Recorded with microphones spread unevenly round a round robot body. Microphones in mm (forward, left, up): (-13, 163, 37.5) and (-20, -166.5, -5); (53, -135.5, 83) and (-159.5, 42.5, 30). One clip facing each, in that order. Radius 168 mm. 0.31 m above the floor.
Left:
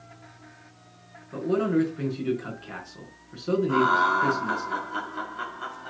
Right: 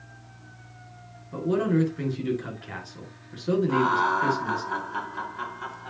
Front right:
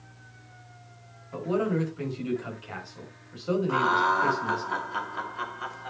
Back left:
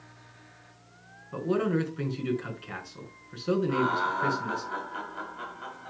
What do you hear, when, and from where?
1.3 s a man speaking: 165° right, 4.5 m
3.7 s laughter: 10° right, 2 m